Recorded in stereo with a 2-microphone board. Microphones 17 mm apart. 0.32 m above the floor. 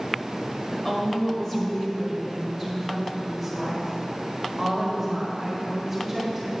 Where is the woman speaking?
30° left (ahead or behind), 1.5 m; by 6.5 s 5° right (ahead or behind), 4 m.